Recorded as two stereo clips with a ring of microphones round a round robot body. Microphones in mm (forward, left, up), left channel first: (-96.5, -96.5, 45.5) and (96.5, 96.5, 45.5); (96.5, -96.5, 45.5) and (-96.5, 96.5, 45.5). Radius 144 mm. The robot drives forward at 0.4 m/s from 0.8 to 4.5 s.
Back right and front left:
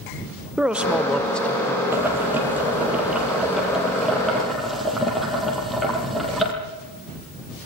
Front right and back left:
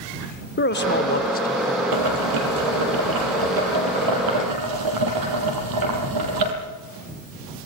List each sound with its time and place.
0.6 s a man speaking: 40° right, 1.3 m; by 1.8 s 65° right, 1.2 m
1.9 s boiling: 125° left, 5.5 m; by 6.5 s 135° left, 6.5 m